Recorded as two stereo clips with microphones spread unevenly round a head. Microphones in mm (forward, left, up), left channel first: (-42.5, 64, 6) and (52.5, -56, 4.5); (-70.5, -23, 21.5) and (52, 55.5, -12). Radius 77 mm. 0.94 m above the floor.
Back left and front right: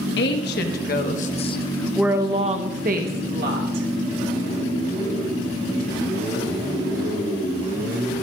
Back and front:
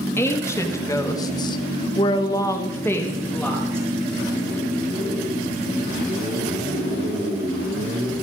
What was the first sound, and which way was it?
A woman speaking, 135° left.